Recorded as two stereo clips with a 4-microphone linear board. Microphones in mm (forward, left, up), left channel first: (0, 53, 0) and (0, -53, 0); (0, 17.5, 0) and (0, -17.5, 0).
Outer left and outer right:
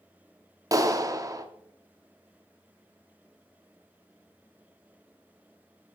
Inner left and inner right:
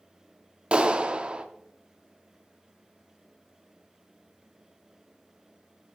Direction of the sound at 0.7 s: 35° right (ahead or behind).